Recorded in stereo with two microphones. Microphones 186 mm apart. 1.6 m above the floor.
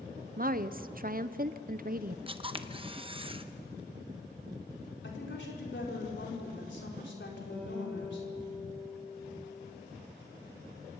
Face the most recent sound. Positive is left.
turn(degrees=5)  # may be behind; listen again after turning